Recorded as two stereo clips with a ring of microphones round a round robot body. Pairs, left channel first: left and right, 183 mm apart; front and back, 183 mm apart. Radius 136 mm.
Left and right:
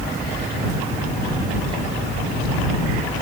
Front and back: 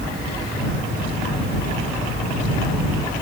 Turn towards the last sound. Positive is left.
No sound to turn to.